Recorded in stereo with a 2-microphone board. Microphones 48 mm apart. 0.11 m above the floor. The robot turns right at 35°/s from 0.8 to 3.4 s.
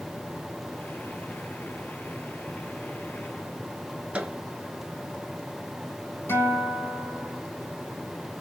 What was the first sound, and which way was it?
A microwave, 30° right (ahead or behind).